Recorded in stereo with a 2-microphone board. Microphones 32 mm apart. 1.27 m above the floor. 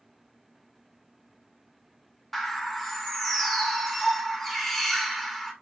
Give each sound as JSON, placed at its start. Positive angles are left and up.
{"t": 2.3, "sound": "a bird", "side_deg": 5, "distance_m": 1.8}